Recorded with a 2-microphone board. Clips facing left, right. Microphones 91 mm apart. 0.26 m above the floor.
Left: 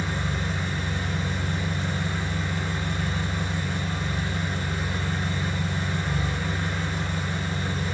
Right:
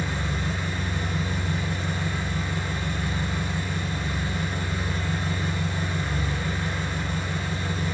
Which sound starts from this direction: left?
An engine running, at 0.0 s.